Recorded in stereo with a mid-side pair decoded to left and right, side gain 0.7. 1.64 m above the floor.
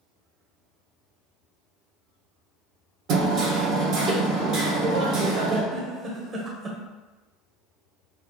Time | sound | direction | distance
3.1 | hammering | 55° right | 1.4 m
5.7 | a giggle | 30° right | 1.2 m